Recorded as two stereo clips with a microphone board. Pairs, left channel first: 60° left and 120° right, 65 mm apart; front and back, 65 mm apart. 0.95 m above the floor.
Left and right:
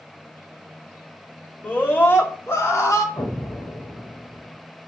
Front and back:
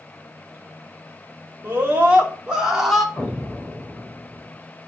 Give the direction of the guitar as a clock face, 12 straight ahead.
I don't hear a guitar.